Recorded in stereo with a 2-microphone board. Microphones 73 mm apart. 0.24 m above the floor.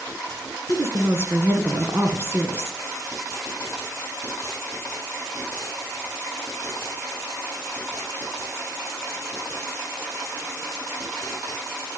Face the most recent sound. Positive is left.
turn(degrees=-35)  # may be behind; listen again after turning